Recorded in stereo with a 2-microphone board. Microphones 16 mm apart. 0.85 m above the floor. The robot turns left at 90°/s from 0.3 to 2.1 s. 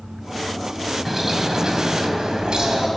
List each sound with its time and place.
1.1 s a bird: 15° right, 3 m; by 2.9 s 110° right, 3 m